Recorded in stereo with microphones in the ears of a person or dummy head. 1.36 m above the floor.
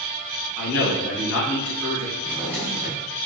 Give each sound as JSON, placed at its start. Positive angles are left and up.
{"t": 0.6, "sound": "a man speaking", "side_deg": 70, "distance_m": 1.5}
{"t": 2.2, "sound": "a drawer", "side_deg": -10, "distance_m": 0.9}